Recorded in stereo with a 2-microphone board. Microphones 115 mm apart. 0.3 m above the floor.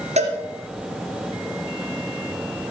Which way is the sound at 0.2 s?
80° right.